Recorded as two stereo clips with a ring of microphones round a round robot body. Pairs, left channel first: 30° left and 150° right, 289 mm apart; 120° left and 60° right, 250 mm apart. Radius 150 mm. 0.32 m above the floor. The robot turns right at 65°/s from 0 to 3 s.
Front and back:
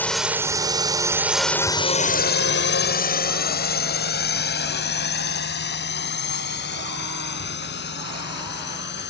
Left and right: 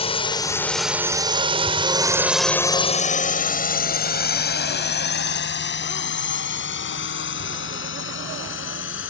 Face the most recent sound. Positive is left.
turn(degrees=85)